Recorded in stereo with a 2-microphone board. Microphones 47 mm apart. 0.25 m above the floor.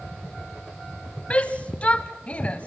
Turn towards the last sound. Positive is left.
turn(degrees=25)  # may be behind; listen again after turning